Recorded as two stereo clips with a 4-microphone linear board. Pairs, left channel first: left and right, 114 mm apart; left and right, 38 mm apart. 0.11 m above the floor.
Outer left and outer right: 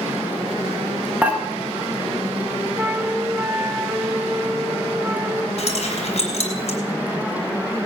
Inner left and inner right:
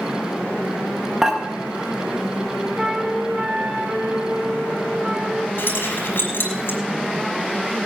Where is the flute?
25° right (ahead or behind), 1.7 m.